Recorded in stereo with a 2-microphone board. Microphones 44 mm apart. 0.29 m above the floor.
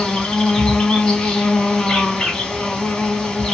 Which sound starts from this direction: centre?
An insect, at 0.0 s.